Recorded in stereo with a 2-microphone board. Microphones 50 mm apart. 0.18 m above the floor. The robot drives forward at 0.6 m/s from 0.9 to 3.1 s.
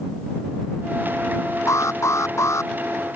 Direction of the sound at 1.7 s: 75° left (ahead or behind).